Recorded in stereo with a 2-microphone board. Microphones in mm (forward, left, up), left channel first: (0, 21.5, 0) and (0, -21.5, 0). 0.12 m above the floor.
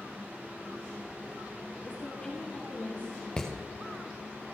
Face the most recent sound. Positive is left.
turn(degrees=15)  # may be behind; listen again after turning